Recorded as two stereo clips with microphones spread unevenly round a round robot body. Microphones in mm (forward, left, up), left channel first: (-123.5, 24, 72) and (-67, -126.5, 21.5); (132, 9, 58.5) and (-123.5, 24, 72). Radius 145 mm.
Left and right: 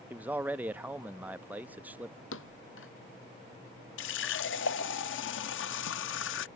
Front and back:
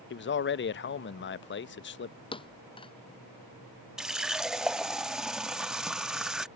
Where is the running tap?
90° left.